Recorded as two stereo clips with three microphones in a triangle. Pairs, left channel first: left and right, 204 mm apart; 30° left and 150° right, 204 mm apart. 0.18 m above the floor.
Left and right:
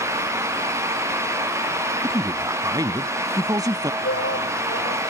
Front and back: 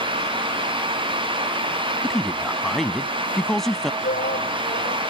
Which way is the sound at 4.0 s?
75° left.